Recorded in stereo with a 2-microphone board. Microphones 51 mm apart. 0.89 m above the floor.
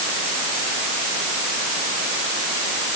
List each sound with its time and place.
Only background noise.